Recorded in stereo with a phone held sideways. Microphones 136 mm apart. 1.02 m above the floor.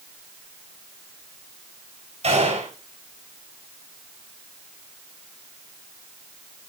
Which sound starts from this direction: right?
A gunshot, at 2.2 s.